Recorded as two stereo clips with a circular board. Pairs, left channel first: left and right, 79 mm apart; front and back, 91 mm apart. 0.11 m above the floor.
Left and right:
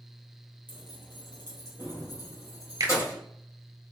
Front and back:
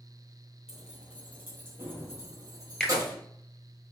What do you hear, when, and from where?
0.7 s keys jangling: 95° left, 1.7 m; by 3.2 s 135° left, 2.5 m
2.8 s a finger snap: 80° right, 1.4 m